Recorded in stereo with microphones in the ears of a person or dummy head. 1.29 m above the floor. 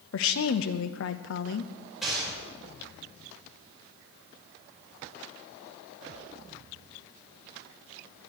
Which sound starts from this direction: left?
A woman speaking, at 0.1 s.